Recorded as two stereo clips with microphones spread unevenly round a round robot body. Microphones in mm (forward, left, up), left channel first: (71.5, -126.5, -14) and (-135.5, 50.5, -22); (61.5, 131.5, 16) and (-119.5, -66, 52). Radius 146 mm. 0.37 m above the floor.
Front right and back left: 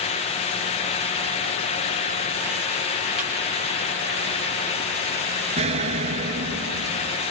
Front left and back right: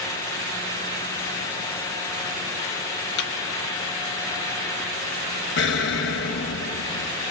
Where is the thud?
50° left, 3.5 m.